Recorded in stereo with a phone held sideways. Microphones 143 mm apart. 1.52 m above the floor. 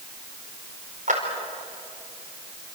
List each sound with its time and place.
1.1 s a clap: 60° right (ahead or behind), 5 m